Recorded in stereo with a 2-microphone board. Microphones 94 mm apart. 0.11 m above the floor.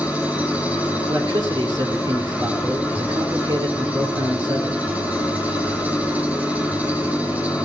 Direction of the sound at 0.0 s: 15° right (ahead or behind).